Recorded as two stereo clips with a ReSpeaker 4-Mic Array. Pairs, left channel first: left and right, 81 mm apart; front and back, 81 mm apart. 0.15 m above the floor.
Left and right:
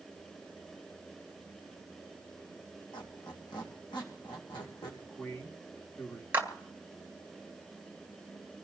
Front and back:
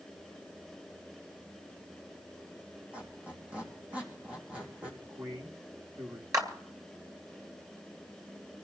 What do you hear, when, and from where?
2.9 s a squeak: 105° left, 3.5 m
5.0 s a man speaking: 145° left, 2.5 m
6.3 s a clap: 150° right, 2 m